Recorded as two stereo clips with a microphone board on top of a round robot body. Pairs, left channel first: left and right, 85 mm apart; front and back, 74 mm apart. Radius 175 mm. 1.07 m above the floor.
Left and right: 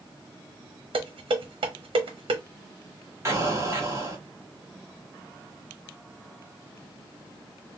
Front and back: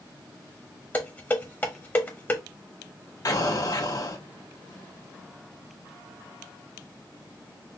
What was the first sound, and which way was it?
Dishes clattering, 65° right.